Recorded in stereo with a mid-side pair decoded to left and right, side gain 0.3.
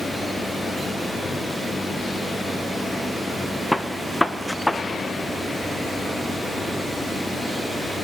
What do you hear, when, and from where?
3.7 s a gunshot: 5° left, 0.8 m